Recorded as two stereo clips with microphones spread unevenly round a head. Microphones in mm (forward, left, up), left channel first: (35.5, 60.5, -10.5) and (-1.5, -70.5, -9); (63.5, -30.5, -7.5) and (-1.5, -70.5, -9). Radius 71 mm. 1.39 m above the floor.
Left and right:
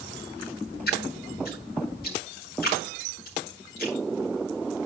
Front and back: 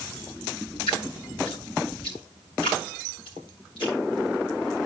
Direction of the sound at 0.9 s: 70° left.